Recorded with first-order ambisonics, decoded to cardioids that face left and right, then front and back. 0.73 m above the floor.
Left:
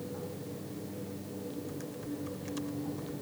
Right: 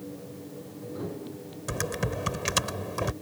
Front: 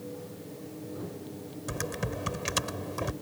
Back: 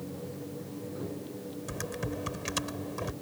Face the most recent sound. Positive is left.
turn(degrees=-75)